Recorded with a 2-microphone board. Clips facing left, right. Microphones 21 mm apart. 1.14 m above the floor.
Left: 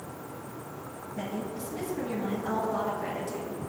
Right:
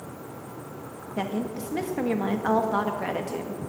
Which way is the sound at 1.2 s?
75° right (ahead or behind).